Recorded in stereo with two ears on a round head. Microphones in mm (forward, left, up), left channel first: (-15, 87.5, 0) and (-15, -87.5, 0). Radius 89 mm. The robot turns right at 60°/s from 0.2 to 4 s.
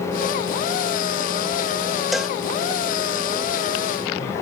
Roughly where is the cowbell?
Centre.